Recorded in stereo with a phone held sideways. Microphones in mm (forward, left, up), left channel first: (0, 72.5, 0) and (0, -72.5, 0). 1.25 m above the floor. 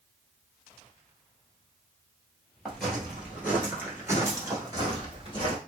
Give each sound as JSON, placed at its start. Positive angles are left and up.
{"t": 2.6, "sound": "footsteps", "side_deg": 0, "distance_m": 1.5}